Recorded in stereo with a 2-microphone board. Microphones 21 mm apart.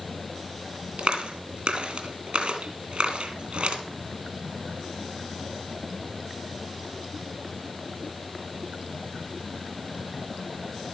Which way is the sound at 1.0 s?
55° right (ahead or behind).